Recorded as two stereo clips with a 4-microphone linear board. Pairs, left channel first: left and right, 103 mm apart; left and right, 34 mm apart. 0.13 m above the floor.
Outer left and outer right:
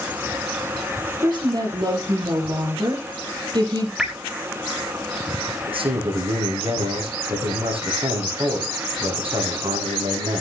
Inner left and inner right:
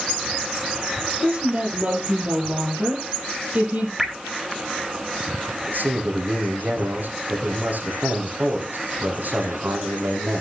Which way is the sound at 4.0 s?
5° right (ahead or behind).